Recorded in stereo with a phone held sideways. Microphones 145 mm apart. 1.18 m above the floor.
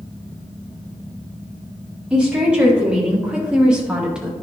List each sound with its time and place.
2.1 s a woman speaking: 10° right (ahead or behind), 3 m; by 4.3 s 5° right (ahead or behind), 1.5 m